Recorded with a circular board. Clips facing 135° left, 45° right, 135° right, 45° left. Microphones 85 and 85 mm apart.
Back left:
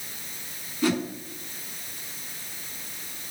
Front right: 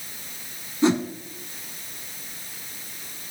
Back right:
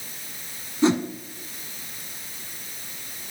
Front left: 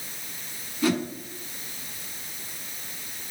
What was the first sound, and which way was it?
A whoosh, 90° right.